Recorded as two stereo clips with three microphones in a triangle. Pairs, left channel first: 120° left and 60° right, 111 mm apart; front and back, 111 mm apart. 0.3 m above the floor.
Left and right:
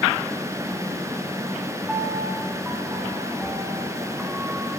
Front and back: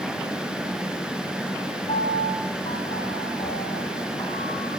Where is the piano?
25° left, 0.7 m.